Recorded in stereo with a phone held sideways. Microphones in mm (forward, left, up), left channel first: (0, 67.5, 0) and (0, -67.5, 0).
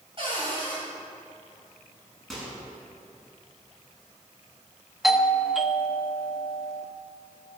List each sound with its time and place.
0.2 s a cupboard door: 40° right (ahead or behind), 6 m
2.3 s a microwave: centre (ahead or behind), 6 m
5.0 s a doorbell: centre (ahead or behind), 0.9 m